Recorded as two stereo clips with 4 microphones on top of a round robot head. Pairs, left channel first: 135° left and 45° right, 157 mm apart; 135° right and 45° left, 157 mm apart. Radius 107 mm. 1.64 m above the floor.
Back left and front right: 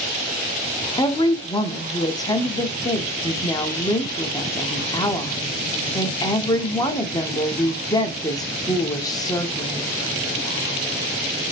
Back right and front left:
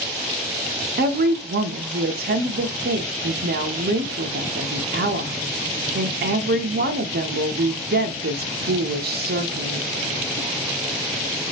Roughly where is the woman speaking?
Left.